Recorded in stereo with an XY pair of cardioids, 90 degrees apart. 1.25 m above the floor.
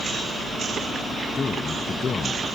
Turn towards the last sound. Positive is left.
turn(degrees=45)